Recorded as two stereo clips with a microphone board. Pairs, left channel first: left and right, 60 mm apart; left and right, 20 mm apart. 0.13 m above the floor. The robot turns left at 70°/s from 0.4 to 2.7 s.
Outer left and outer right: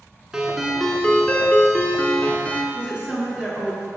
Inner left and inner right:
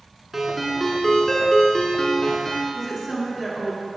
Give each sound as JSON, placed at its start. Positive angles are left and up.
{"t": 0.3, "sound": "a ringtone", "side_deg": -5, "distance_m": 1.0}
{"t": 2.7, "sound": "a woman speaking", "side_deg": -15, "distance_m": 1.7}